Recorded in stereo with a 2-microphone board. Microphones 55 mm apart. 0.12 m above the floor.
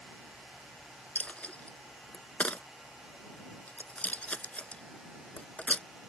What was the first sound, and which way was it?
A dropped coin, 30° left (ahead or behind).